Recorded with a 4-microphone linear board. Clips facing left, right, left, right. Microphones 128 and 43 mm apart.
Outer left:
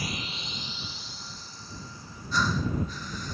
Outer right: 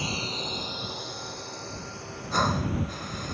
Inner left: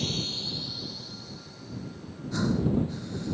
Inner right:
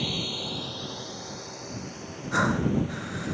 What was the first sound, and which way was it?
A drone, 25° right (ahead or behind).